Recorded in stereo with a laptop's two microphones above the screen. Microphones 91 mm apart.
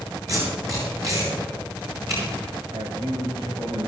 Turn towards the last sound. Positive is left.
turn(degrees=-75)  # may be behind; listen again after turning